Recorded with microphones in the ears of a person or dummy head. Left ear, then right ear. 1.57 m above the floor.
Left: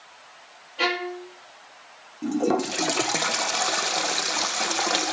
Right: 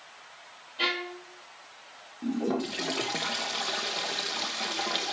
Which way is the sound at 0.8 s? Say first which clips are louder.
Left 4 dB; 55° left (ahead or behind).